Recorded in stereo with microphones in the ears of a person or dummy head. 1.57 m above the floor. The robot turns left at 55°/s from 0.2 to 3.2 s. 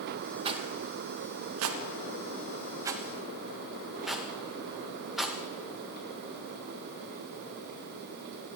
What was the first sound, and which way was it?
A rattle, 25° right (ahead or behind).